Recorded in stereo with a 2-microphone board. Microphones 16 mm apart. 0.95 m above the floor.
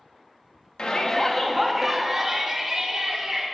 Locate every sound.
0.8 s a shout: 55° left (ahead or behind), 1.2 m; by 3.5 s 40° right (ahead or behind), 3 m